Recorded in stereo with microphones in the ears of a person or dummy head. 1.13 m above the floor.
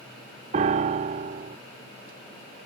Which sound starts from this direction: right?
A piano, at 0.5 s.